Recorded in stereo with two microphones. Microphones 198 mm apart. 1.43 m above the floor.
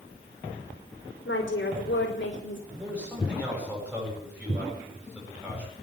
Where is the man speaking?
5° right (ahead or behind), 8 m.